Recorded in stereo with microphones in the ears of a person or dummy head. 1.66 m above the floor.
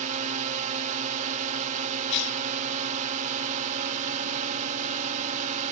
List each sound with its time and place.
0.0 s a drone: 40° right (ahead or behind)
2.1 s a cough: 65° left (ahead or behind)